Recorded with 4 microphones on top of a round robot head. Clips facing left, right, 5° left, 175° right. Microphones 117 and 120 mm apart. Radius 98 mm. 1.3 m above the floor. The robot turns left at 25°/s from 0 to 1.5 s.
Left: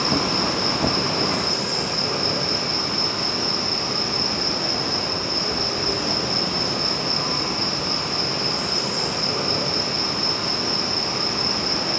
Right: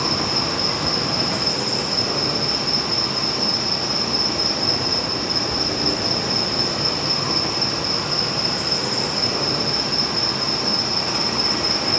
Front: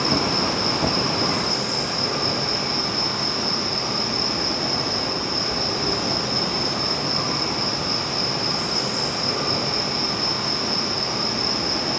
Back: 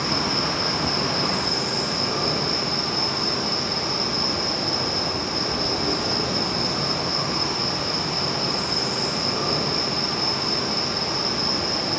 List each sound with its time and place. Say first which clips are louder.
0.0 s an insect: left 1 dB, front 3 dB; 45° right, 3 m; by 12.0 s 85° right, 3 m